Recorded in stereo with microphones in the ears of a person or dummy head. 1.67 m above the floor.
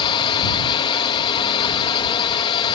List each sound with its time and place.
0.0 s a drone: 30° left (ahead or behind)